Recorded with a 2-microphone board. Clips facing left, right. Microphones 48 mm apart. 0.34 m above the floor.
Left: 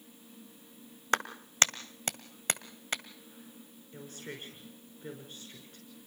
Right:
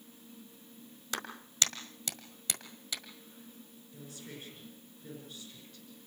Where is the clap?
45° left (ahead or behind), 1.4 m.